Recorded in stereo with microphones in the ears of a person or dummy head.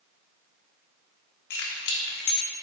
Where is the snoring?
No snoring in this recording.